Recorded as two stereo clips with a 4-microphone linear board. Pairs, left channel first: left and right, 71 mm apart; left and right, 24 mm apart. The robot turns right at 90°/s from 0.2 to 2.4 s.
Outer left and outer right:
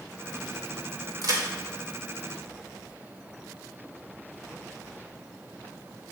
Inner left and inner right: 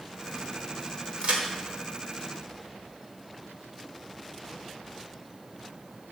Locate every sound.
1.2 s a crack: 65° right (ahead or behind), 1.0 m; by 1.4 s 55° right (ahead or behind), 1.0 m